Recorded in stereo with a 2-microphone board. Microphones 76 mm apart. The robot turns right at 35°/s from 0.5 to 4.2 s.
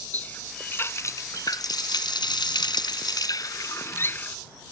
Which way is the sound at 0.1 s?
20° left.